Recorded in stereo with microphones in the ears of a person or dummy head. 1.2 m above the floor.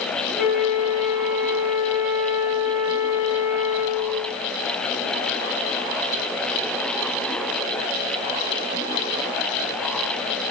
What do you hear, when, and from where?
0.4 s a flute: centre (ahead or behind), 1.6 m